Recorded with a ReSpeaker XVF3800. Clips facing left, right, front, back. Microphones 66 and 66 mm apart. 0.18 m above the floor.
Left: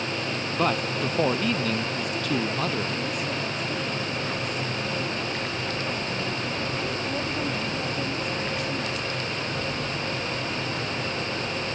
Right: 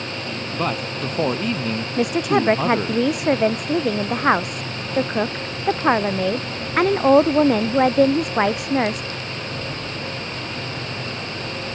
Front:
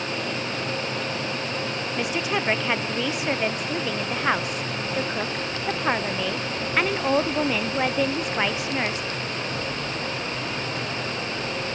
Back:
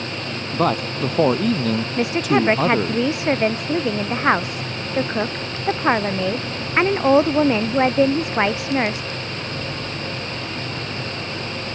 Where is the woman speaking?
115° right.